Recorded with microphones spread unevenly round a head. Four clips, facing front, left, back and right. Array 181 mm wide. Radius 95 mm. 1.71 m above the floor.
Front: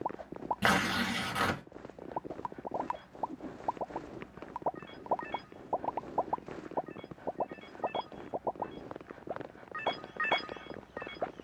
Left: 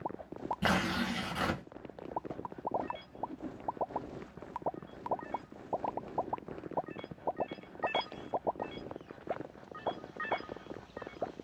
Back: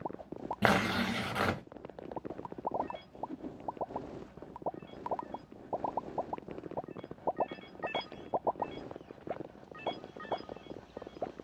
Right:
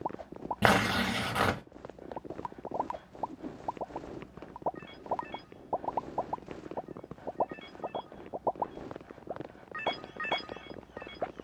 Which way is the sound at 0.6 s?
110° right.